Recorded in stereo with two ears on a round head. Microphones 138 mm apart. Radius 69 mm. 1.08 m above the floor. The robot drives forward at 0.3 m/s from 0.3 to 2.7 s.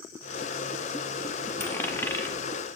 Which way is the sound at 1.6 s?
15° left (ahead or behind).